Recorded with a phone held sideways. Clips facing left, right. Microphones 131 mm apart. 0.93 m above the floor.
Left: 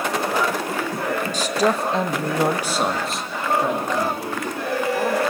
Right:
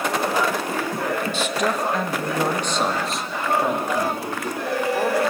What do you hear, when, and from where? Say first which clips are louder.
1.3 s a man speaking: left 2 dB; 40° left (ahead or behind), 1.0 m; by 5.2 s 15° right (ahead or behind), 2.5 m